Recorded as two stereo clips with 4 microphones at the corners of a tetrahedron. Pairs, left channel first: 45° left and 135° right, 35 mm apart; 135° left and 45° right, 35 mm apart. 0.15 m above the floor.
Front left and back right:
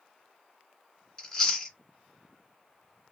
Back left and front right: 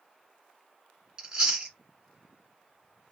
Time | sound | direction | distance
1.2 | chewing | 15° right | 1.4 m